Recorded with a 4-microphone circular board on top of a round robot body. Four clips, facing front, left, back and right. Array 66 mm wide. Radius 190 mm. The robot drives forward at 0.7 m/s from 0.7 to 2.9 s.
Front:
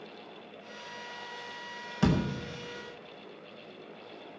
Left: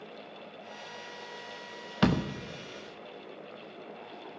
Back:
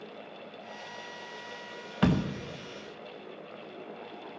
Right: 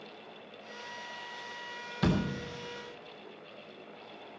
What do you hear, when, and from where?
2.0 s a door slam: 120° left, 1.4 m; by 2.3 s 125° left, 1.5 m